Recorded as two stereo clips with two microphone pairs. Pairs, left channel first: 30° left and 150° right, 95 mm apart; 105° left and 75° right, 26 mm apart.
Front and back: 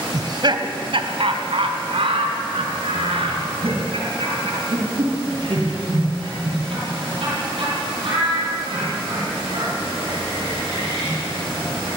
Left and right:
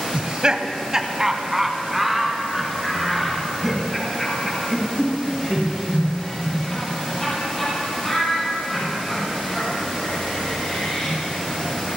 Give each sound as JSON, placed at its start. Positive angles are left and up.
{"t": 0.1, "sound": "laughter", "azimuth_deg": -115, "distance_m": 1.6}